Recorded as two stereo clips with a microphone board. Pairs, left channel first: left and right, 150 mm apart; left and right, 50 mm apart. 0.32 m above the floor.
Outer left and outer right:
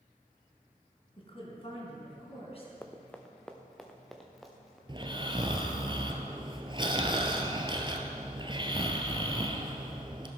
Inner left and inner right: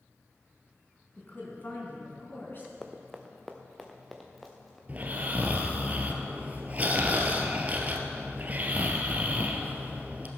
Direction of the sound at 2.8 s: 10° left (ahead or behind).